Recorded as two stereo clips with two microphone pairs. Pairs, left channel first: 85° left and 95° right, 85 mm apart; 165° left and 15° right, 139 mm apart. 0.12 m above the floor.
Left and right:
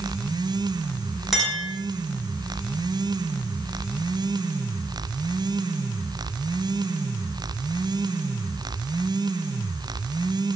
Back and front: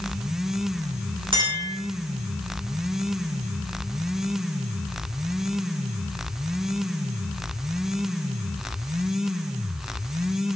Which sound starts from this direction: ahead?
A clink, at 1.3 s.